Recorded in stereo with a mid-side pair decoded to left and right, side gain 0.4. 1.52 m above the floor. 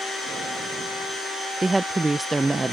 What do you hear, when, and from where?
1.6 s a woman speaking: 25° right